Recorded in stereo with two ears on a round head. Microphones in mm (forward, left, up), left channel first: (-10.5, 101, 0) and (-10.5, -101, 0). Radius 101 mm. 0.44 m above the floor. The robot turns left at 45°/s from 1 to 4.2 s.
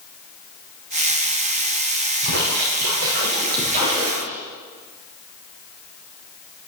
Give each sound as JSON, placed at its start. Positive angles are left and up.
{"t": 2.2, "sound": "a splash", "azimuth_deg": -80, "distance_m": 6.5}